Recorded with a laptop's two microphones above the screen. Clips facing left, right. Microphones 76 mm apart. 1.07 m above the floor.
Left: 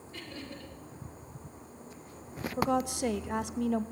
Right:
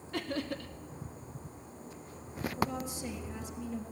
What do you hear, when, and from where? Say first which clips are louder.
0.1 s laughter: right 9 dB; 75° right (ahead or behind), 2.5 m
2.6 s a woman speaking: left 8 dB; 75° left (ahead or behind), 1.3 m